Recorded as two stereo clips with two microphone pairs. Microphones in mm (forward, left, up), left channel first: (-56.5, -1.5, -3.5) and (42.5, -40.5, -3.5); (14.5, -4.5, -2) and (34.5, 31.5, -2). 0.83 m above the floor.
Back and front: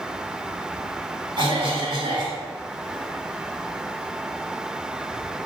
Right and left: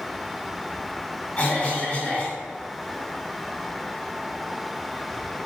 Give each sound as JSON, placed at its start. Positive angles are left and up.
{"t": 1.4, "sound": "a cough", "azimuth_deg": -65, "distance_m": 2.0}